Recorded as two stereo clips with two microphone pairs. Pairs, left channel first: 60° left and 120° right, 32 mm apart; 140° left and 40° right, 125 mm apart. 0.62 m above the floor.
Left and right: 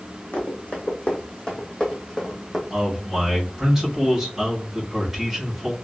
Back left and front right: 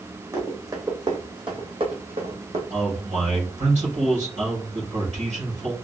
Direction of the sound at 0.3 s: 25° left.